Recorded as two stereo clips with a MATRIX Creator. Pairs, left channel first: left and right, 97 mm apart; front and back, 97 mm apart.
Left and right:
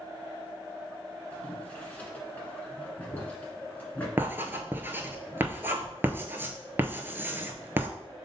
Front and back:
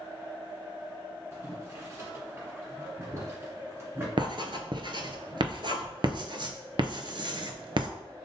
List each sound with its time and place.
1.3 s boiling: 150° left, 1.4 m
4.2 s writing: 155° right, 0.6 m